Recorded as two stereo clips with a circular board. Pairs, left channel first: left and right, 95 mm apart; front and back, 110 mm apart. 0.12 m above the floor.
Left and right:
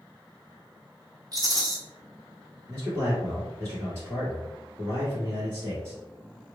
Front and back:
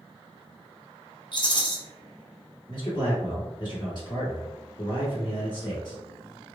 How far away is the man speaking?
About 1.7 m.